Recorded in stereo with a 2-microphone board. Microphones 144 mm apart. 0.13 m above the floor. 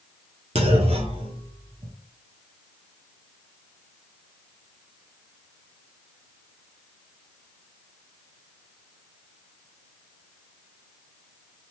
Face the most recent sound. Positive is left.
turn(degrees=-45)  # may be behind; listen again after turning